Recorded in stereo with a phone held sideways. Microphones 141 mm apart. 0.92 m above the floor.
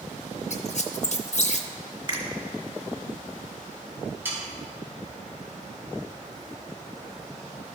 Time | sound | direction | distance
0.5 | a squeak | 55° left (ahead or behind) | 0.6 m
2.1 | a finger snap | 35° right (ahead or behind) | 1.9 m
4.2 | sawing | 15° right (ahead or behind) | 3 m